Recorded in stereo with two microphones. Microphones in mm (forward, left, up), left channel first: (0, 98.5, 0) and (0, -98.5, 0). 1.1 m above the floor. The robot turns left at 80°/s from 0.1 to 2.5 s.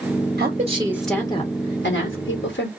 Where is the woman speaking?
125° right, 1.5 m; by 2.7 s 65° left, 1.5 m.